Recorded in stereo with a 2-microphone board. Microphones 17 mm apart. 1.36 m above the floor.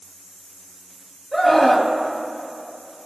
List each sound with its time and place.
1.3 s a scream: 10° left (ahead or behind), 1.9 m